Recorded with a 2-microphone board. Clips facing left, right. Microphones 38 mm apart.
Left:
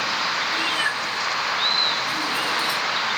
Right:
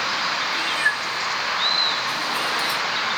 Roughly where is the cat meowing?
Left.